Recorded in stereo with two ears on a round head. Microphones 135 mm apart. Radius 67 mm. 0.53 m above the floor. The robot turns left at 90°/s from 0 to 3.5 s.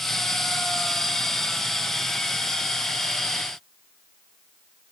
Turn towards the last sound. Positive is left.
No sound to turn to.